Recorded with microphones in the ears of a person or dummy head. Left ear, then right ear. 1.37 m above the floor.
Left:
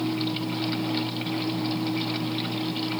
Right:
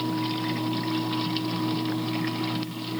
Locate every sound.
Only background noise.